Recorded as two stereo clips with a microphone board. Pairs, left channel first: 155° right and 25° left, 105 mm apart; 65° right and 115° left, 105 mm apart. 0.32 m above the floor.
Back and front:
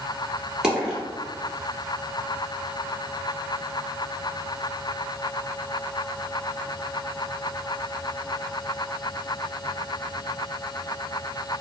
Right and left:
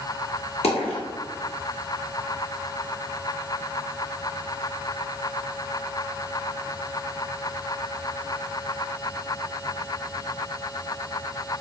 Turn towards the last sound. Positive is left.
turn(degrees=-60)